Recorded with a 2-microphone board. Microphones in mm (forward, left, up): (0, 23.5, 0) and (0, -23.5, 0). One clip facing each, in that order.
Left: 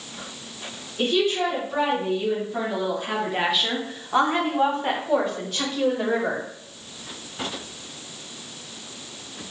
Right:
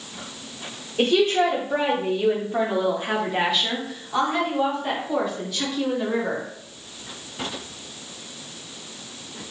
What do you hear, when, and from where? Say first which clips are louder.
1.0 s a woman speaking: right 3 dB; 65° right (ahead or behind), 1.9 m; by 6.5 s 55° left (ahead or behind), 2.5 m